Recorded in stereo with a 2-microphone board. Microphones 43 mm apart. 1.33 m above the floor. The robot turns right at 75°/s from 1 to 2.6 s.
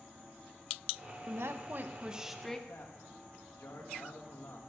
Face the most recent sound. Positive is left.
turn(degrees=80)